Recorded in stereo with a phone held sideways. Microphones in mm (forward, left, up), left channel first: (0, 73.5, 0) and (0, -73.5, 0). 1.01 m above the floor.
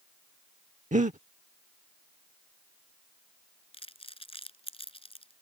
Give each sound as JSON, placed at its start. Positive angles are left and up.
{"t": 0.9, "sound": "breathing", "side_deg": -55}
{"t": 3.7, "sound": "crumpling", "side_deg": 40}